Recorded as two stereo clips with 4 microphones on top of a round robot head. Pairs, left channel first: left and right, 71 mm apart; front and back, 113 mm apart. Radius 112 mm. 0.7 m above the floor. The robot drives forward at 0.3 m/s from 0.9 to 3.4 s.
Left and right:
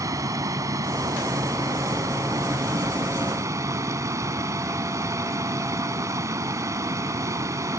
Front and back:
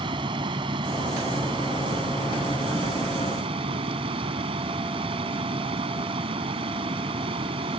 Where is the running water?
130° right; by 7.8 s 135° right.